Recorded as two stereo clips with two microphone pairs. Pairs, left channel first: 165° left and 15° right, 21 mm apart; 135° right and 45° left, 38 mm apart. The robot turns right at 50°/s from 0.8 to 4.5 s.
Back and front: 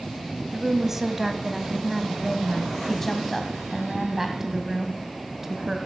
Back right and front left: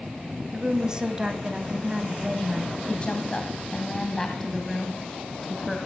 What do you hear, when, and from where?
0.5 s a woman speaking: 15° left, 1.1 m; by 2.8 s 115° left, 1.1 m
2.9 s a woman speaking: 145° right, 1.7 m; by 5.8 s 65° right, 1.7 m